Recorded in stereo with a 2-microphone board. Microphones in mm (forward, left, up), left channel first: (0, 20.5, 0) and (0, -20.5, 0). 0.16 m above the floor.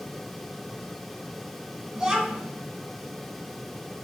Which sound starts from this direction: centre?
A child speaking, at 1.9 s.